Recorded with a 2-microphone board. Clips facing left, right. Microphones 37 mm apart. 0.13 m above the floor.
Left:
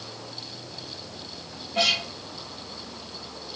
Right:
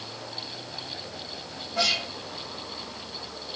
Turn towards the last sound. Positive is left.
turn(degrees=45)  # may be behind; listen again after turning